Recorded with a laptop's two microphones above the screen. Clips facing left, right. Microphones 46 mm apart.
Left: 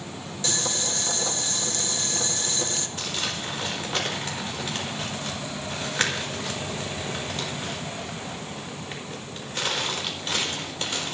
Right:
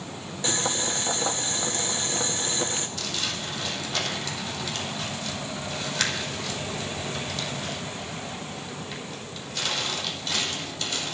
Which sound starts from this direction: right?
Boiling, at 0.4 s.